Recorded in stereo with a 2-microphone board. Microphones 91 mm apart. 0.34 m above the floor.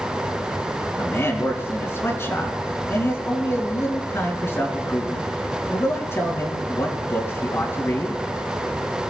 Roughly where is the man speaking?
Left.